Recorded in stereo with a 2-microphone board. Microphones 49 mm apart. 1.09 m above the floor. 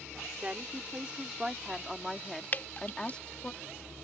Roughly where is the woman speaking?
Right.